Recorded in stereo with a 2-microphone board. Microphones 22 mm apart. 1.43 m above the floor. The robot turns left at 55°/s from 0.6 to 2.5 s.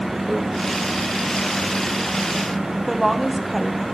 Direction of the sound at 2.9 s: Centre (ahead or behind).